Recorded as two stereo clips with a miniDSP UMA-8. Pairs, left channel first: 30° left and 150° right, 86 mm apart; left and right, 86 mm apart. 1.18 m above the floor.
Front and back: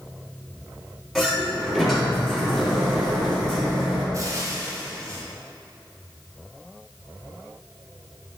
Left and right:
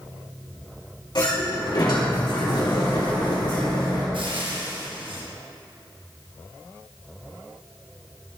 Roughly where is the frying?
Right.